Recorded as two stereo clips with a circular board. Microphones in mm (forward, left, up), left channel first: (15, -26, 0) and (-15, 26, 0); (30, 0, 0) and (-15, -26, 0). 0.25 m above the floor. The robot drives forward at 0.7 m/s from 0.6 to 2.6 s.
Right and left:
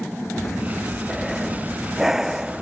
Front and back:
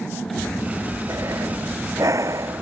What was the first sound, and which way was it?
Breathing, 150° right.